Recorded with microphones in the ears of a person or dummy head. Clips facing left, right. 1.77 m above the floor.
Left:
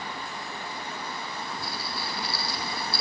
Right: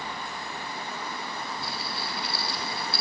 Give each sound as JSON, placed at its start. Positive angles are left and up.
{"t": 1.6, "sound": "a rattle", "side_deg": -20, "distance_m": 4.5}